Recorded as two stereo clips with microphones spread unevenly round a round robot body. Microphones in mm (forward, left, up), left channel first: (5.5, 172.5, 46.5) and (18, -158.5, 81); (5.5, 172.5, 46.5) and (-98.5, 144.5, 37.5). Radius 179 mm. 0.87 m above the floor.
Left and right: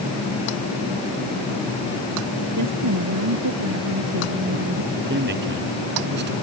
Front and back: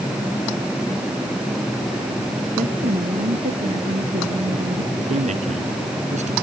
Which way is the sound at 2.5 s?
130° right.